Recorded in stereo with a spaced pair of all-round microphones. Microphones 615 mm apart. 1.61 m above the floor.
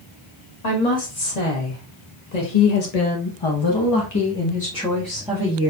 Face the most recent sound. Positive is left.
turn(degrees=-10)  # may be behind; listen again after turning